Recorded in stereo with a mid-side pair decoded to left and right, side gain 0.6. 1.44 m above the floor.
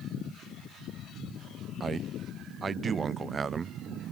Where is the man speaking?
30° right, 0.6 m.